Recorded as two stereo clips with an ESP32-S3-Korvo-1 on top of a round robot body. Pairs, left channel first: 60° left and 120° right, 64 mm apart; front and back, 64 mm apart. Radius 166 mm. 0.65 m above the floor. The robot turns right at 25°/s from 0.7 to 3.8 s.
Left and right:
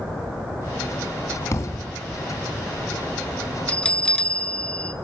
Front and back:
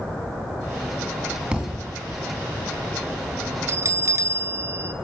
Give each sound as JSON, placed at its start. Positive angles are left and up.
{"t": 1.5, "sound": "a thud", "azimuth_deg": 105, "distance_m": 2.5}
{"t": 3.7, "sound": "a bell", "azimuth_deg": 135, "distance_m": 0.9}